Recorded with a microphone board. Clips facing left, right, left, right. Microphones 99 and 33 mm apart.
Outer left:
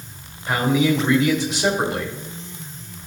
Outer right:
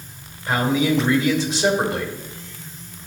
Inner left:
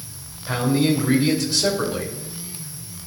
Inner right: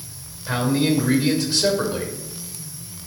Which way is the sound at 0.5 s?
30° right (ahead or behind).